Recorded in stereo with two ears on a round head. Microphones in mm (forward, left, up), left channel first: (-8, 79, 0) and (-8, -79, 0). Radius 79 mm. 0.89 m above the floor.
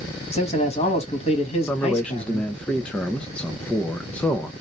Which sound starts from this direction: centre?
A man speaking, at 1.7 s.